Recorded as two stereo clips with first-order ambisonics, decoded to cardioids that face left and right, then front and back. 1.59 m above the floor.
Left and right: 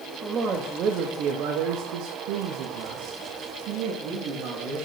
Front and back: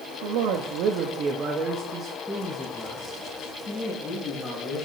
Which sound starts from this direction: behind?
A man speaking, at 0.2 s.